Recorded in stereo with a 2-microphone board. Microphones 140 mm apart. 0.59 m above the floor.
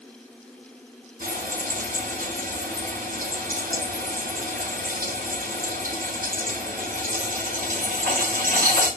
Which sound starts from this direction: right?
Frying, at 1.2 s.